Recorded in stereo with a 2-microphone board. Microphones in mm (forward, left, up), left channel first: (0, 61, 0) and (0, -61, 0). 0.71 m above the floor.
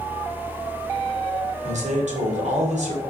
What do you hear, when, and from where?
1.6 s a man speaking: 70° right (ahead or behind), 2 m